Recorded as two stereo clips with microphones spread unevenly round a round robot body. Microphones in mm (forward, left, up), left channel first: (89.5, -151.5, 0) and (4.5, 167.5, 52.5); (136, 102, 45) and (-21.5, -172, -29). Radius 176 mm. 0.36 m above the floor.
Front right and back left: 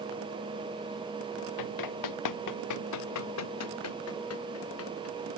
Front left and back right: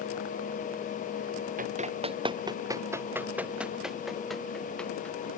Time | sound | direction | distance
1.6 | running footsteps | 55° right | ?